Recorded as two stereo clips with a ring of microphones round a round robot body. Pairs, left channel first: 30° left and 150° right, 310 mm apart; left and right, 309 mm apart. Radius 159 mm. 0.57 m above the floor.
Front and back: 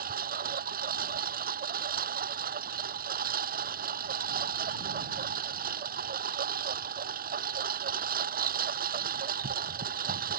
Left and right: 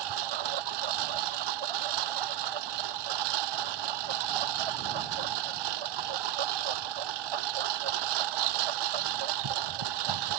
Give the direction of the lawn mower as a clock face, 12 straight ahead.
3 o'clock.